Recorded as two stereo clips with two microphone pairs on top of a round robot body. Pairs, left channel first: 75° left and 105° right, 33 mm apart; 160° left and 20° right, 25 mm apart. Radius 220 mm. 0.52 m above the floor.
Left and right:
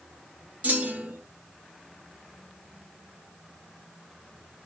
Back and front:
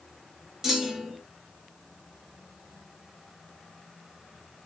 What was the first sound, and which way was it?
A clunk, 85° right.